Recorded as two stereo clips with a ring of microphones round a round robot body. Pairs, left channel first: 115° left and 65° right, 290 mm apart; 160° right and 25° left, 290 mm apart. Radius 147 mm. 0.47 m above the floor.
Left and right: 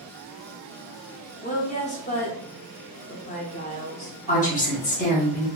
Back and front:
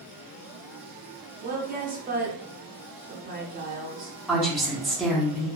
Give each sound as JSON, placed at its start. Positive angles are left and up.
{"t": 1.4, "sound": "a woman speaking", "azimuth_deg": 65, "distance_m": 0.8}
{"t": 4.3, "sound": "a woman speaking", "azimuth_deg": 115, "distance_m": 0.8}